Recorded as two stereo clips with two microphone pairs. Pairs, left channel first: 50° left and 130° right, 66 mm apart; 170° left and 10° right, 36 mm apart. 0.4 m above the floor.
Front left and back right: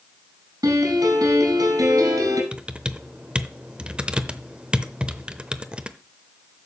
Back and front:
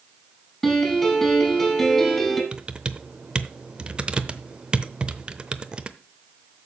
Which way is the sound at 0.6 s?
105° right.